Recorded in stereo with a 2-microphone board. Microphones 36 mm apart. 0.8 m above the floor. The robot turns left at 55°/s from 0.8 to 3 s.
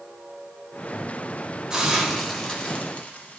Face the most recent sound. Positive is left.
turn(degrees=45)  # may be behind; listen again after turning